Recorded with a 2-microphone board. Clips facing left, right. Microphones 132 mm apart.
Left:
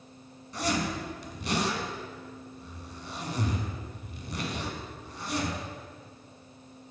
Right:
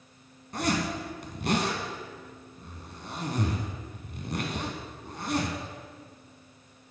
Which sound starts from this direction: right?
A zipper, at 0.5 s.